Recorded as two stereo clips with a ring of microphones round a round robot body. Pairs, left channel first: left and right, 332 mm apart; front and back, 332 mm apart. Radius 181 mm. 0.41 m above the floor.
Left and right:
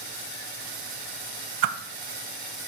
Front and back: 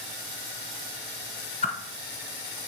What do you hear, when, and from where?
1.6 s a whoosh: 70° right, 0.8 m